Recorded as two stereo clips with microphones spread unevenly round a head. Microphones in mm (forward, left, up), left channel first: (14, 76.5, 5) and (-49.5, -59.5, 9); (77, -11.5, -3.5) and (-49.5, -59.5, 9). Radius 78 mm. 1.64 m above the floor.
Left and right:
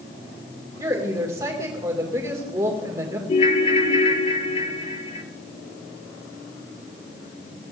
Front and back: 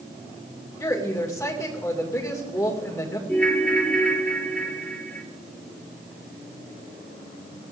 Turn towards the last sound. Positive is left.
turn(degrees=105)